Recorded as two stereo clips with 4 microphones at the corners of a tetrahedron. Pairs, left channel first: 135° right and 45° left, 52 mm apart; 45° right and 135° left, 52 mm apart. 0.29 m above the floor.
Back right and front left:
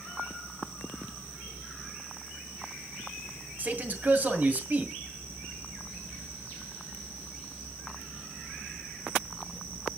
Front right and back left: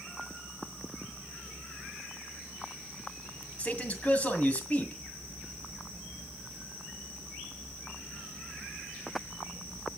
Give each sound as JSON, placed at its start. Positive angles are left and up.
{"t": 3.6, "sound": "a man speaking", "azimuth_deg": 5, "distance_m": 2.0}